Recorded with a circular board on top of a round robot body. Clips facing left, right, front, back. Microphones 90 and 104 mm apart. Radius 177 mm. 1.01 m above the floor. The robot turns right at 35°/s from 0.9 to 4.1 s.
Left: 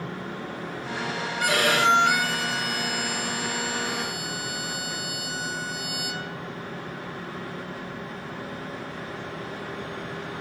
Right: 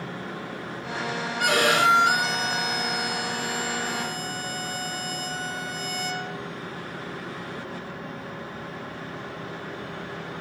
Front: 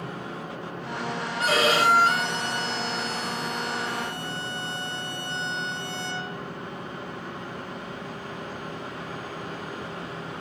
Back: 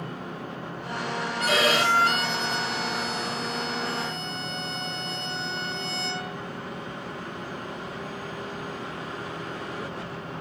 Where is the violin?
60° right, 6.5 m; by 6.4 s 30° left, 6.5 m.